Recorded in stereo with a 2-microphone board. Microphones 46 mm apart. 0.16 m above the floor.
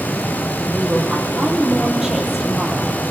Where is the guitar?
No guitar in this recording.